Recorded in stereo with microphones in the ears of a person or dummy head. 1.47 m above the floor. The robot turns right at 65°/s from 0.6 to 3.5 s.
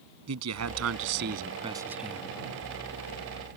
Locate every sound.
0.3 s a man speaking: 95° right; by 2.4 s 20° left